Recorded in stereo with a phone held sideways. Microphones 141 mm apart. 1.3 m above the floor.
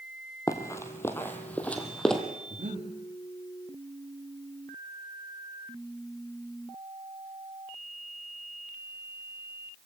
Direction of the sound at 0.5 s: 25° left (ahead or behind).